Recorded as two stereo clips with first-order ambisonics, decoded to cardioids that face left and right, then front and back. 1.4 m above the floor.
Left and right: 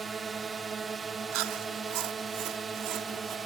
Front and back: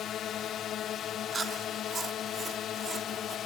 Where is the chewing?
105° right.